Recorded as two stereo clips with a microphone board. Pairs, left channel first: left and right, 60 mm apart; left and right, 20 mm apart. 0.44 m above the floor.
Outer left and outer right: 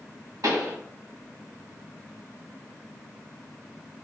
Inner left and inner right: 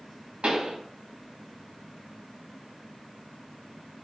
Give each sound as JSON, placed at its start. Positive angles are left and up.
{"t": 0.4, "sound": "a pop", "side_deg": -80, "distance_m": 1.0}